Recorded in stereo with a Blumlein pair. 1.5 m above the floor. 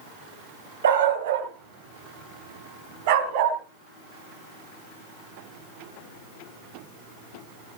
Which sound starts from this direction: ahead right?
A dog barking, at 0.8 s.